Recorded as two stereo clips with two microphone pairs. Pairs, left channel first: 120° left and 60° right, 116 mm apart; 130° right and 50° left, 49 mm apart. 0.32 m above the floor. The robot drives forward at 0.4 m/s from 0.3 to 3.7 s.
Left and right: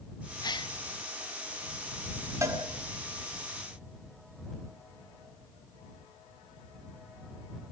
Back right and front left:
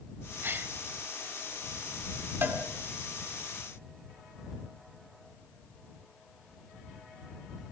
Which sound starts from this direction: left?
A gasp, at 0.4 s.